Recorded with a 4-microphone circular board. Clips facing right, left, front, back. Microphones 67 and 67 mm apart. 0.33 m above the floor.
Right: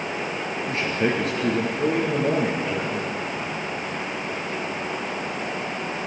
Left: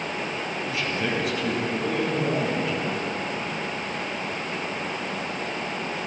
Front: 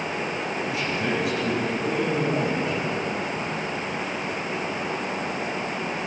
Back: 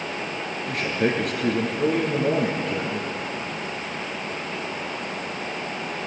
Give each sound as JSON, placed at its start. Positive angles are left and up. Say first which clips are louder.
{"t": 0.7, "sound": "a man speaking", "louder": "right 5 dB, back 5 dB", "azimuth_deg": -140, "distance_m": 4.5}